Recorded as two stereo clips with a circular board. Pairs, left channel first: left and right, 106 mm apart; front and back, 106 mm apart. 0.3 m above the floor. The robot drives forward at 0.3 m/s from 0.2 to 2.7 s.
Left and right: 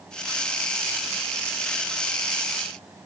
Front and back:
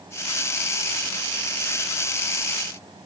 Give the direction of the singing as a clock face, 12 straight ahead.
No singing in this recording.